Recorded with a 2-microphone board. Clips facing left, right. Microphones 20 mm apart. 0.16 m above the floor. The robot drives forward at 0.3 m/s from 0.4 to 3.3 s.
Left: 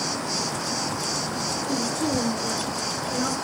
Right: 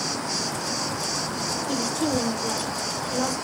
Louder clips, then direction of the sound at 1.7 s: Right 1 dB; 60° right (ahead or behind).